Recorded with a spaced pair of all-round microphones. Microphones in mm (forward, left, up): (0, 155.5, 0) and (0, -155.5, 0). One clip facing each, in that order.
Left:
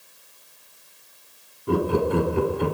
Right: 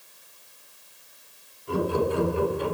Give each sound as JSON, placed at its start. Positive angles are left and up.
{"t": 1.7, "sound": "laughter", "side_deg": 70, "distance_m": 3.0}